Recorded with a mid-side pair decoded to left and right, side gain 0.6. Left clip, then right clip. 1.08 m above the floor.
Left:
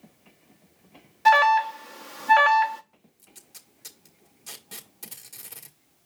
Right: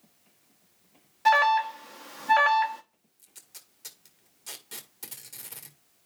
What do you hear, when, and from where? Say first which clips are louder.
1.2 s an alarm: left 4 dB; 15° left, 1.1 m
3.2 s tape being pulled: even; straight ahead, 1.9 m